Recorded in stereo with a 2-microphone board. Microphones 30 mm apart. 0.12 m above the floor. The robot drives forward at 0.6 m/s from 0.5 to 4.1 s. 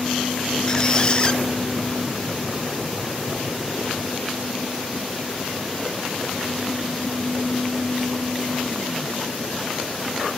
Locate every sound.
0.7 s a squeak: 25° left (ahead or behind), 0.9 m; by 1.4 s 30° left (ahead or behind), 0.8 m